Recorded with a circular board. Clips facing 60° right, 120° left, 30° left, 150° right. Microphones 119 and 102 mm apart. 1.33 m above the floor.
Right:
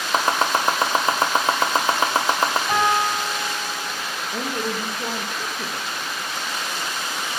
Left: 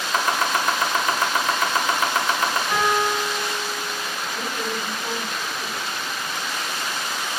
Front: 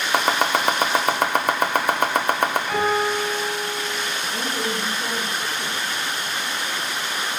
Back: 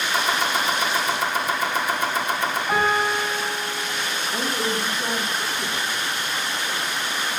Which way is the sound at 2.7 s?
80° right.